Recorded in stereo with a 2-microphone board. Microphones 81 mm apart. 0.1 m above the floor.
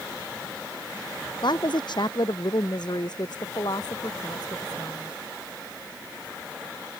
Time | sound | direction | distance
1.4 | a woman speaking | 65° left (ahead or behind) | ?